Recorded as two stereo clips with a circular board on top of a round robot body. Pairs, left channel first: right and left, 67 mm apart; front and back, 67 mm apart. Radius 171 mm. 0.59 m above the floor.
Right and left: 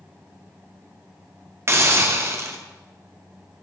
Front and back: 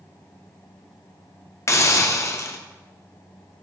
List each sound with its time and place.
1.7 s a hiss: 45° left, 1.5 m